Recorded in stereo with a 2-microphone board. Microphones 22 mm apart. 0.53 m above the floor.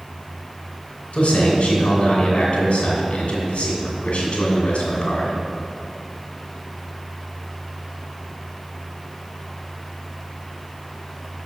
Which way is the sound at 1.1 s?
60° left (ahead or behind).